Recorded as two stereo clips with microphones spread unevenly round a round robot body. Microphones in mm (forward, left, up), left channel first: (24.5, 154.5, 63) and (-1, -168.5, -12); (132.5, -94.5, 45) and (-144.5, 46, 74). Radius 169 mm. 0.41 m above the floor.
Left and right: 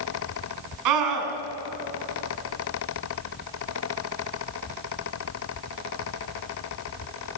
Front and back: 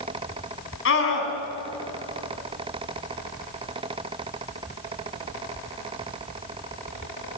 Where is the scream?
75° right, 5 m.